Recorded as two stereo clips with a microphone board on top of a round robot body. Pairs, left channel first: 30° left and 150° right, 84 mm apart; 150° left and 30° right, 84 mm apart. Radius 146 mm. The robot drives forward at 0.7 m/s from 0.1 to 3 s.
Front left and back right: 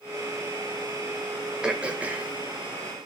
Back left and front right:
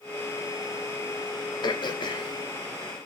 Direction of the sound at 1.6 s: 130° left.